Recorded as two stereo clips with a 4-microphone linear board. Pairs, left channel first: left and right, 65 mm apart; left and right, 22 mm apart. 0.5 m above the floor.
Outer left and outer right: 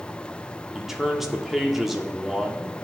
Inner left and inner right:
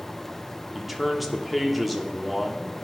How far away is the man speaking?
About 0.6 m.